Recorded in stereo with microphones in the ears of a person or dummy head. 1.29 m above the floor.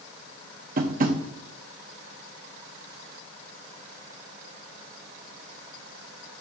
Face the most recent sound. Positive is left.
turn(degrees=-45)  # may be behind; listen again after turning